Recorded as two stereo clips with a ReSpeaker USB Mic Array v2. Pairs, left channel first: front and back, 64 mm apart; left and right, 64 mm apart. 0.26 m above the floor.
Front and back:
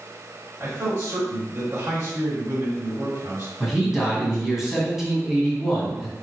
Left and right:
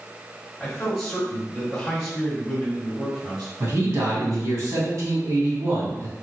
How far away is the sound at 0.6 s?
About 1.7 m.